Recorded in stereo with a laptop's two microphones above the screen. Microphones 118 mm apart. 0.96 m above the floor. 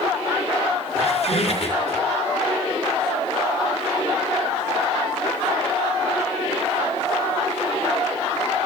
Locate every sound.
1.0 s a squeak: 60° left (ahead or behind), 6 m